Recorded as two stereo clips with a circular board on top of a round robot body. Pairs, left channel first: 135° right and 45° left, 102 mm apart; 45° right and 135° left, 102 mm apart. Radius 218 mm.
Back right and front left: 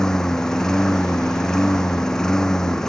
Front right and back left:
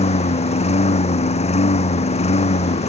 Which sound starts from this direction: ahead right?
A lawn mower, at 0.0 s.